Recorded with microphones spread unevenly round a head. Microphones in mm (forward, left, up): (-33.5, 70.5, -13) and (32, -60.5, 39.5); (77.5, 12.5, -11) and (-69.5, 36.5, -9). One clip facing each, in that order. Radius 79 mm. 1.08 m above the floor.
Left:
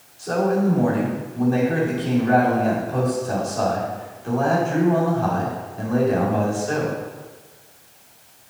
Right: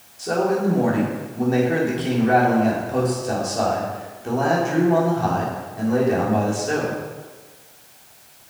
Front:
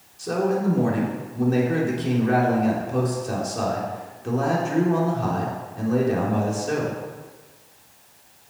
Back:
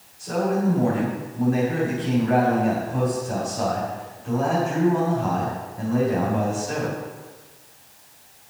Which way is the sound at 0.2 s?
5° left.